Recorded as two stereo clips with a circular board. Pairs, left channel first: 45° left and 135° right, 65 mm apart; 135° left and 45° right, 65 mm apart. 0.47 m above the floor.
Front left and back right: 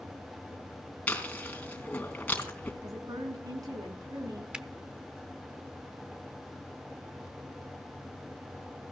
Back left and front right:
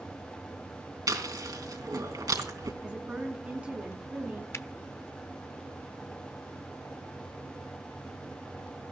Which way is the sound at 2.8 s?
115° right.